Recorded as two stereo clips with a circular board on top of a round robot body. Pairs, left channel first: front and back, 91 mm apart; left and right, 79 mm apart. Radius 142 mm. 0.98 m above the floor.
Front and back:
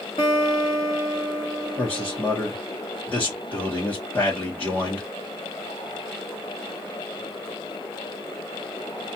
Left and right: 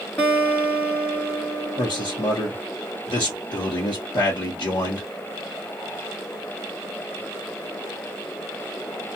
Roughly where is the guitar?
Ahead left.